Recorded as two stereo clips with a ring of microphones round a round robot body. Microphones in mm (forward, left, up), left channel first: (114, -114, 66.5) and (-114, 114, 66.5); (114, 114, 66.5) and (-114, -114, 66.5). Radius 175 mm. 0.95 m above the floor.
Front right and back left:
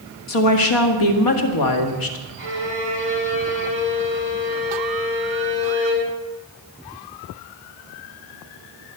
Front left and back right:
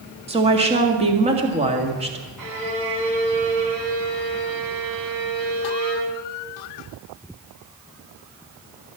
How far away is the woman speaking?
About 1.9 m.